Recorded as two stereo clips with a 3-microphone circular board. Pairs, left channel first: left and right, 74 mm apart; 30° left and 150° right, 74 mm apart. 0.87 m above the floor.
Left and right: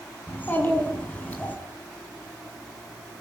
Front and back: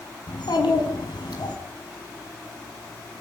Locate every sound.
0.3 s a child speaking: 25° left, 6 m; by 1.6 s 20° left, 5 m